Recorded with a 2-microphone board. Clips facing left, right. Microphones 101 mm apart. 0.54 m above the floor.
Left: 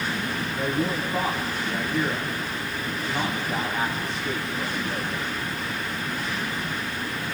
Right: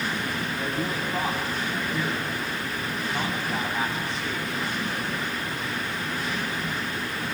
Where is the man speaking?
Centre (ahead or behind), 4 m.